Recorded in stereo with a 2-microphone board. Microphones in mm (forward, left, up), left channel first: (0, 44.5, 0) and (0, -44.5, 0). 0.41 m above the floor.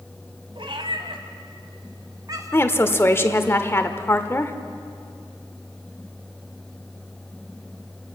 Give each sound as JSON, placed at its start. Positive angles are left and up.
{"t": 0.6, "sound": "a cat meowing", "side_deg": -75, "distance_m": 1.6}
{"t": 2.5, "sound": "a woman speaking", "side_deg": 25, "distance_m": 1.1}